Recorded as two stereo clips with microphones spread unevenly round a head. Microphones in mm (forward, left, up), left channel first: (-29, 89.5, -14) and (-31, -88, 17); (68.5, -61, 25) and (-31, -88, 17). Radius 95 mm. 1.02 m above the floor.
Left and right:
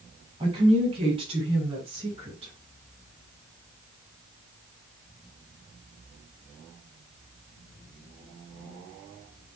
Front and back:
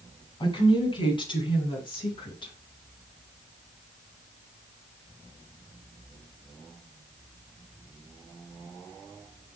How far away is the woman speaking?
About 7.5 m.